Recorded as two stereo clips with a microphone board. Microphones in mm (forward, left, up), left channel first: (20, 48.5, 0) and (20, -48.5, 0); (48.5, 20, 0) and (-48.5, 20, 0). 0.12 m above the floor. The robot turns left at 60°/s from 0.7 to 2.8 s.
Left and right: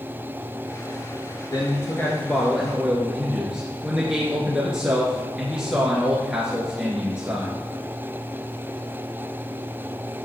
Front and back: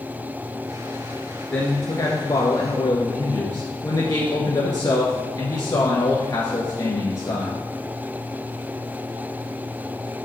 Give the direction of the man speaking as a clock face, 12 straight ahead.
10 o'clock.